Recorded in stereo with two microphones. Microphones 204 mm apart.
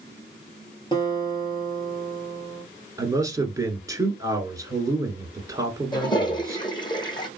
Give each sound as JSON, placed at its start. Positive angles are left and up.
{"t": 0.9, "sound": "a guitar", "side_deg": 25, "distance_m": 1.6}
{"t": 3.0, "sound": "a man speaking", "side_deg": -15, "distance_m": 1.2}
{"t": 5.9, "sound": "a toilet flushing", "side_deg": 20, "distance_m": 1.1}